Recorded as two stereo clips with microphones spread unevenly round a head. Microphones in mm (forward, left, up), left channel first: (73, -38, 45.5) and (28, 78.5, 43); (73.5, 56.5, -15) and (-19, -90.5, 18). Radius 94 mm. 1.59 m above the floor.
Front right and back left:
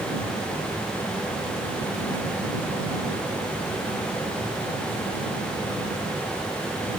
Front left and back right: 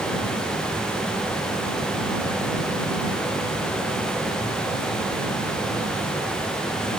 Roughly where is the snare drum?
I don't hear a snare drum.